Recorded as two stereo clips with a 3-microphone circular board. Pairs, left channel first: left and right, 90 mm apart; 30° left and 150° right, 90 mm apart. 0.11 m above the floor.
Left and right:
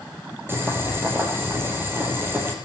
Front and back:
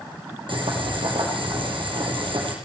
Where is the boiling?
155° right, 3.5 m.